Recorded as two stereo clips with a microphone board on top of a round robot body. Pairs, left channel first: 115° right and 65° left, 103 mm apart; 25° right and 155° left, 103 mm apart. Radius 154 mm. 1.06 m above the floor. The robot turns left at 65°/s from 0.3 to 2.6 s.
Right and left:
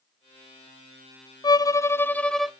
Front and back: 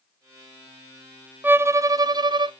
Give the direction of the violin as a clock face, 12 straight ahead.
5 o'clock.